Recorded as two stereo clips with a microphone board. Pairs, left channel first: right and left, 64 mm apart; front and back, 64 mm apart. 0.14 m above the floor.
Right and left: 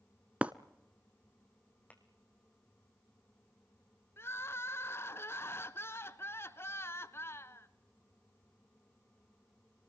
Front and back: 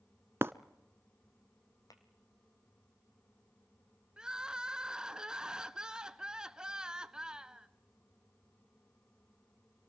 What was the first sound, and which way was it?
Breaking glass, 150° left.